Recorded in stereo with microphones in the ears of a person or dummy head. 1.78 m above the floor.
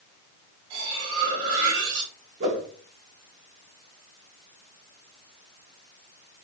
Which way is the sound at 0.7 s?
75° right (ahead or behind).